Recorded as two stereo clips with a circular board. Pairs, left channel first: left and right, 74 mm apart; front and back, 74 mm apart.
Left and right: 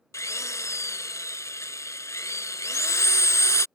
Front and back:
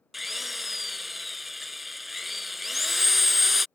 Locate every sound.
0.1 s a drill: 95° left